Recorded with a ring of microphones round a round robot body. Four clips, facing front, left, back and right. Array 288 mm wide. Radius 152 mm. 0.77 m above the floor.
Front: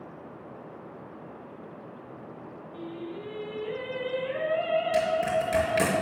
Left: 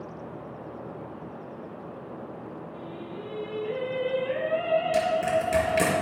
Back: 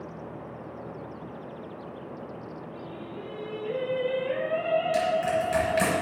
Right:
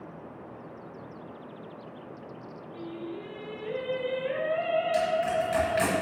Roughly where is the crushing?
Ahead left.